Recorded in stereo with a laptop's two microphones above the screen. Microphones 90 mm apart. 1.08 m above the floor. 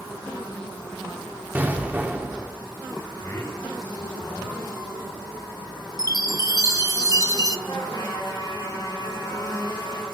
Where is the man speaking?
40° left (ahead or behind), 4.5 m.